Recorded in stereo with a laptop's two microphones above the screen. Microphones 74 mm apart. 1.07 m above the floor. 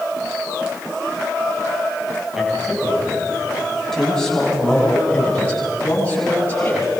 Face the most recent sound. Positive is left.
turn(degrees=20)  # may be behind; listen again after turning